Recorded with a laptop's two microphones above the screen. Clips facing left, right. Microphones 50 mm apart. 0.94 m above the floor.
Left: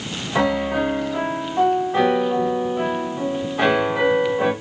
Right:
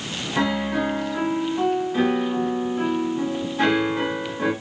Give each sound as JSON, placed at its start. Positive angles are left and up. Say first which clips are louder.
{"t": 0.3, "sound": "a piano", "louder": "left 3 dB", "side_deg": 80, "distance_m": 2.5}